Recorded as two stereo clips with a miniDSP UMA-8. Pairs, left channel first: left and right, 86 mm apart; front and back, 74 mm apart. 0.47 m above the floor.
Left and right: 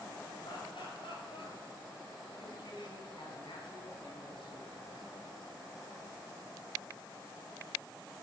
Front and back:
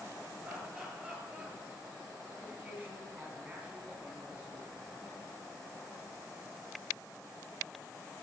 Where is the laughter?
115° left, 6.5 m.